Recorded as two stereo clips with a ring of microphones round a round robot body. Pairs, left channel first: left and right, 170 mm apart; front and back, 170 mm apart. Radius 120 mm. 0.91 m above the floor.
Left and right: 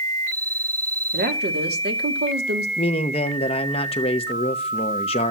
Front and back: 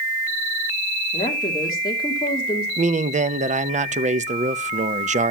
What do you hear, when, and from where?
1.1 s a woman speaking: 70° right, 2 m
2.8 s a man speaking: 145° left, 0.7 m